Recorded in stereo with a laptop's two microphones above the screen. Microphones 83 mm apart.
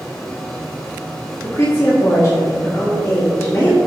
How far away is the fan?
About 1.2 m.